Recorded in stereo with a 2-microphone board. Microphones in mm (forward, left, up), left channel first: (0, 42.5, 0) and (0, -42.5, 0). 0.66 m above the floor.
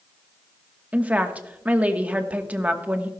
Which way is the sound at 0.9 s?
15° right (ahead or behind).